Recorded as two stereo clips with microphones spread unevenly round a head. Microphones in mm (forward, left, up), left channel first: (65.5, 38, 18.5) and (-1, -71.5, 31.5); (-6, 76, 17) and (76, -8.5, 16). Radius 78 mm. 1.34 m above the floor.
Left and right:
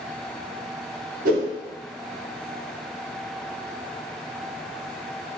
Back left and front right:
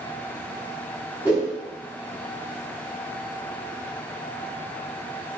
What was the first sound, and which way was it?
A whoosh, 120° right.